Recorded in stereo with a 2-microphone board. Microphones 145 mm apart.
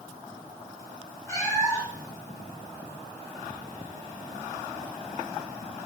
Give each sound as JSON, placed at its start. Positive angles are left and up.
{"t": 1.3, "sound": "a cat meowing", "side_deg": 20, "distance_m": 1.9}